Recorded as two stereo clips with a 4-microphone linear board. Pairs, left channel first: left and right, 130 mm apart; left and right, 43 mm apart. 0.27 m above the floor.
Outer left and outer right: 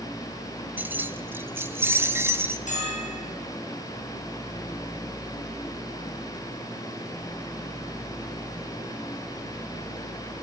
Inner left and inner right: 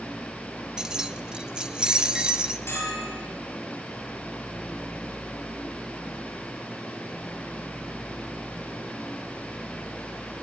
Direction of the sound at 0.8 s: 15° right (ahead or behind).